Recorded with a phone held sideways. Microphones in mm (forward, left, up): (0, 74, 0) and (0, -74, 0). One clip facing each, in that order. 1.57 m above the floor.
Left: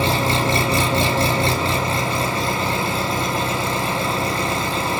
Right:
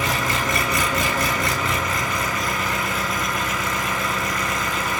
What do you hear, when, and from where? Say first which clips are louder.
0.0 s an engine running: left 5 dB; 30° left (ahead or behind), 1.5 m